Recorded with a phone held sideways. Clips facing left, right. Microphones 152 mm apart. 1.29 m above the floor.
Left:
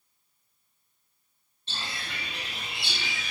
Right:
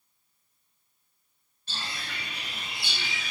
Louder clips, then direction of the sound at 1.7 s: Even; 30° left (ahead or behind).